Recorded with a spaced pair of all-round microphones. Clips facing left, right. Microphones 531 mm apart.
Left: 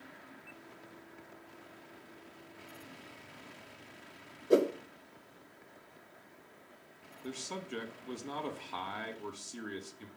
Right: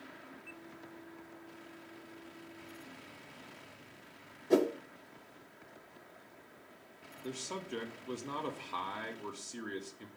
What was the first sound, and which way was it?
A whoosh, 15° right (ahead or behind).